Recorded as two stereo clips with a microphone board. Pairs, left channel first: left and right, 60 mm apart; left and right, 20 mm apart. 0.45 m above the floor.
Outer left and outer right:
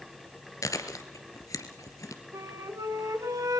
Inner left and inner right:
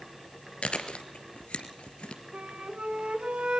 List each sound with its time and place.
0.6 s chewing: 80° left, 2 m
2.3 s a flute: 80° right, 2 m